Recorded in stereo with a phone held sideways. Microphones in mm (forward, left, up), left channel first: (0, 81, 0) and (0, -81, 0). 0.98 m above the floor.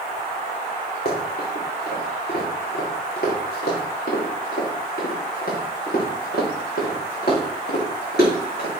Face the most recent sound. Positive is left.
turn(degrees=85)